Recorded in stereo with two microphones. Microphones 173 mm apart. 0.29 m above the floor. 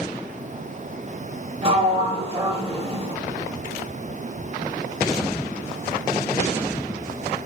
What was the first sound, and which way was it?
A sliding door, 35° right (ahead or behind).